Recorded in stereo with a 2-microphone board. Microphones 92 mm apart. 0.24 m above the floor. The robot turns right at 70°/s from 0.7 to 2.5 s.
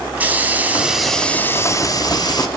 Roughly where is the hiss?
Ahead right.